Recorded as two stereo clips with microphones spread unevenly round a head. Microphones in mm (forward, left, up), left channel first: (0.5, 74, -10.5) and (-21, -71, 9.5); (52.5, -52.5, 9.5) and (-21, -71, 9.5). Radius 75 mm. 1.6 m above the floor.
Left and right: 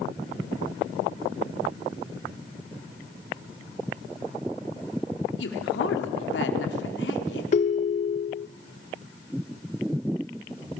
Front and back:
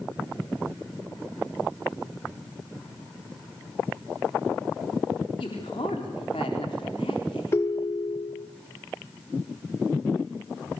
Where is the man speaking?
70° left, 4 m.